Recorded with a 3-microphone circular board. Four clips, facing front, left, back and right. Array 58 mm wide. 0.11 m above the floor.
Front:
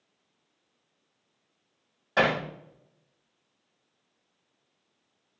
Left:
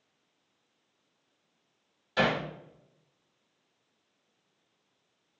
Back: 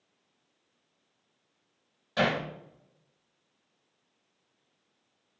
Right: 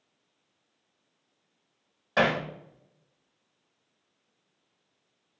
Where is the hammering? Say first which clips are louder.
Right 3 dB, front 3 dB; 60° right, 5.5 m.